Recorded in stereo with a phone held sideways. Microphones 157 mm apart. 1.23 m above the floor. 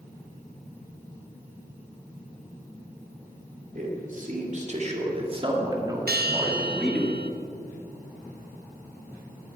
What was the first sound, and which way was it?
A man speaking, 60° right (ahead or behind).